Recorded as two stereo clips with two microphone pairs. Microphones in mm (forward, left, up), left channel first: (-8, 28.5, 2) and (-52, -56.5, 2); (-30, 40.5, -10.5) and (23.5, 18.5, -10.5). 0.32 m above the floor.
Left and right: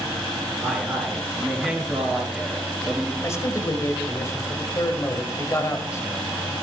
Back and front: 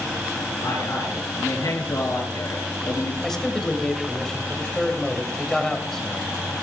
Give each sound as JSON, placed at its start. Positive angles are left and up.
{"t": 0.6, "sound": "a man speaking", "azimuth_deg": 155, "distance_m": 4.5}
{"t": 3.2, "sound": "a man speaking", "azimuth_deg": 85, "distance_m": 1.7}